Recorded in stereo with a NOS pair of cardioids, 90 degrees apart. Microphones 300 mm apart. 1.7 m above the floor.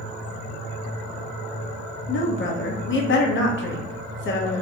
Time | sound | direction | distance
2.1 | a woman speaking | 40° left | 0.7 m